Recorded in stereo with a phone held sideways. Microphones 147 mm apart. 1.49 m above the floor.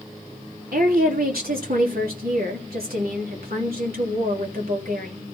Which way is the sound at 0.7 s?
85° right.